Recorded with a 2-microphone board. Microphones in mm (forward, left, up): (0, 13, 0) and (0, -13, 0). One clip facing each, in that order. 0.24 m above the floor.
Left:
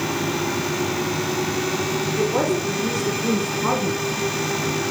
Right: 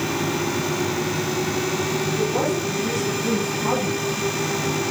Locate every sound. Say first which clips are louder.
2.2 s a woman speaking: left 3 dB; 70° left (ahead or behind), 5 m; by 4.0 s 65° left (ahead or behind), 3.5 m